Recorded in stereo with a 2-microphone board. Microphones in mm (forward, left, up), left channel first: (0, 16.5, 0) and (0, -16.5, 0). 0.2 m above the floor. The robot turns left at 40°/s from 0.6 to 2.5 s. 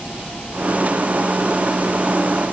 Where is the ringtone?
I don't hear a ringtone.